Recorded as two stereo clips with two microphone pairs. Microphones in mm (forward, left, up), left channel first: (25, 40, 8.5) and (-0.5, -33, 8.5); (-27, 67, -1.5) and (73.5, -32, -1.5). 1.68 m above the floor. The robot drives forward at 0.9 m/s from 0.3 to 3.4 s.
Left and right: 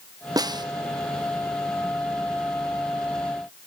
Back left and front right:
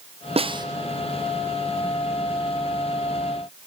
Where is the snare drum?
85° right, 0.9 m; by 0.7 s 100° right, 0.9 m.